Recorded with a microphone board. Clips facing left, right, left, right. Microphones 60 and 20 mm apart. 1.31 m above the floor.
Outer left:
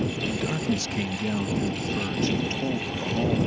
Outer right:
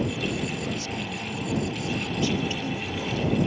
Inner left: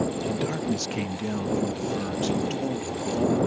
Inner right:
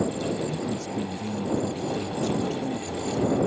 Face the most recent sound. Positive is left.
turn(degrees=25)  # may be behind; listen again after turning